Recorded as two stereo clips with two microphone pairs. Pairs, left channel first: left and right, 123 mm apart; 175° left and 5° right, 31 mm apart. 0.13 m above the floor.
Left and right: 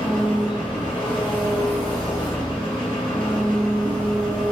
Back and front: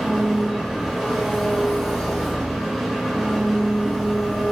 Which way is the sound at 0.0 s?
85° left.